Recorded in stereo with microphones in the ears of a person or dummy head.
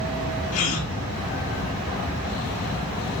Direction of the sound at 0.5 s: 45° left (ahead or behind).